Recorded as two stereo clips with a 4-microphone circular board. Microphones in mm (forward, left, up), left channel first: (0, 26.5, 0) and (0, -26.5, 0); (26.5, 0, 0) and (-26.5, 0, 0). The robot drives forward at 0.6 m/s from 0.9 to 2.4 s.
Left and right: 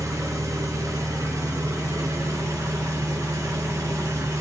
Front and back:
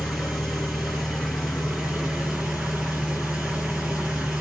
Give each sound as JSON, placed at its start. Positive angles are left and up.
{"t": 0.0, "sound": "an engine running", "azimuth_deg": -95, "distance_m": 6.0}